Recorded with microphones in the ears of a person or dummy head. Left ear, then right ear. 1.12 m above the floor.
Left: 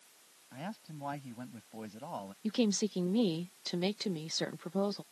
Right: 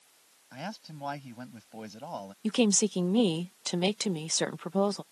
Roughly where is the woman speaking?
Right.